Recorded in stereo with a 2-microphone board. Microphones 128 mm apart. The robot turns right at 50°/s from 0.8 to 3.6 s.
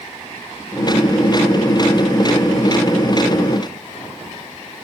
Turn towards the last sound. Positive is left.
No sound to turn to.